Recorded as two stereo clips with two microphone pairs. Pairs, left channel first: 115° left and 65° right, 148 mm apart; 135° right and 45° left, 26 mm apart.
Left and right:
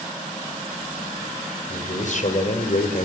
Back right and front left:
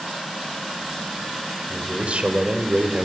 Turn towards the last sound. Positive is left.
turn(degrees=90)